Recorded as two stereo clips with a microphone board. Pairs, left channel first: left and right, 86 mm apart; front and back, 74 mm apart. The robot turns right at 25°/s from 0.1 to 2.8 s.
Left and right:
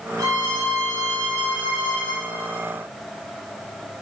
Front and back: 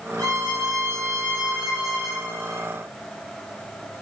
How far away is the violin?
About 2 m.